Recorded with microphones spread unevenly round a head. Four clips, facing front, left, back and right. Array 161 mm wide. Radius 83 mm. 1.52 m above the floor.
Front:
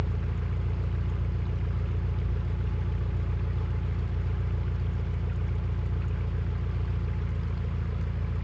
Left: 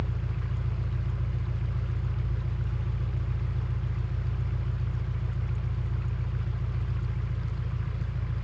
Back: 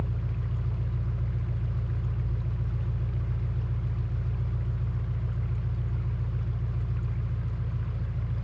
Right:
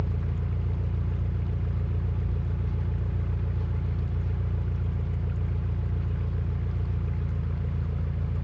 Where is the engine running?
60° right, 2.5 m.